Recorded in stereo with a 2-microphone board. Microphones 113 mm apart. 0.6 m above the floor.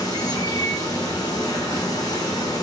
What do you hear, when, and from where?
0.0 s running water: 35° left (ahead or behind), 0.8 m